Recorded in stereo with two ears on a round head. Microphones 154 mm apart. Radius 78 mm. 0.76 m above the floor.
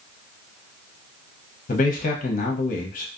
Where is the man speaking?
45° left (ahead or behind), 0.7 m.